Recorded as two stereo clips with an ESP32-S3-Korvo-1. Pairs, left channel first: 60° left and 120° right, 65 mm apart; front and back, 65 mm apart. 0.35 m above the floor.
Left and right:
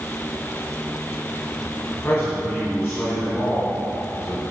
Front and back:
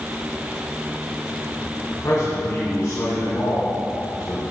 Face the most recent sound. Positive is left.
turn(degrees=5)